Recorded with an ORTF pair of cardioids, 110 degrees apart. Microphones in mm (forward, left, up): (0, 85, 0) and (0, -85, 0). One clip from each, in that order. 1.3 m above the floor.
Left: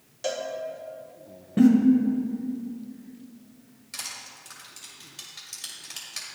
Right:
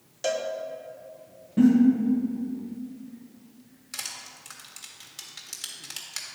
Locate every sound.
0.2 s a cowbell: 15° right, 0.7 m
1.6 s a giggle: 35° left, 1.3 m
3.9 s crushing: 20° right, 1.7 m